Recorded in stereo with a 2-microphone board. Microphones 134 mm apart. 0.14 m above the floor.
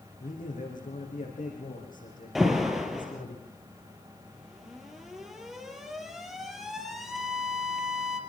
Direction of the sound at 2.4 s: Centre (ahead or behind).